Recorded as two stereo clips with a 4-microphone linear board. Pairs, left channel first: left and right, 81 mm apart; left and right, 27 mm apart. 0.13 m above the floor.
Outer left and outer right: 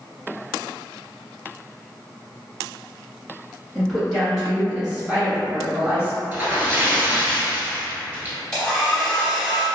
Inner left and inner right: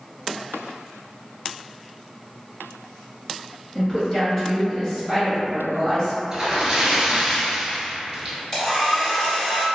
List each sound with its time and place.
3.8 s a woman speaking: centre (ahead or behind), 1.6 m; by 6.2 s 15° right (ahead or behind), 1.6 m
6.3 s a splash: 25° right (ahead or behind), 0.8 m
8.5 s a hair dryer: 10° left (ahead or behind), 1.6 m